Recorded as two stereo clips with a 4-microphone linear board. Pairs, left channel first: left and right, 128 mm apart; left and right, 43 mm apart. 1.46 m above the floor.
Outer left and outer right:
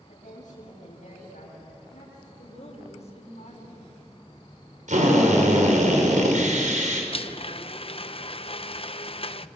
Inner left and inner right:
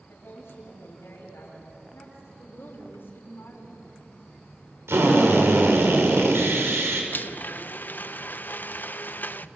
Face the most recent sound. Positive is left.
turn(degrees=50)  # may be behind; listen again after turning